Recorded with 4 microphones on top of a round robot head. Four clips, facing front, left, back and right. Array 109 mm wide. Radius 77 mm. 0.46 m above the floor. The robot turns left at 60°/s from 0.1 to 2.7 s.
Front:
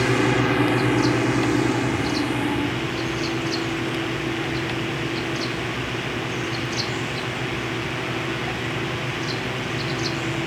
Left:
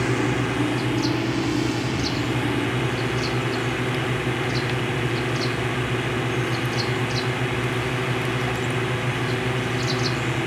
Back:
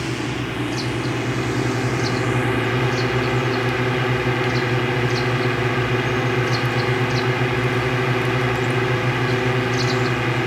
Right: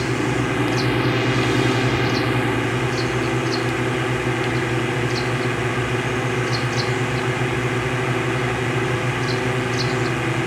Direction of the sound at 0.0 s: Straight ahead.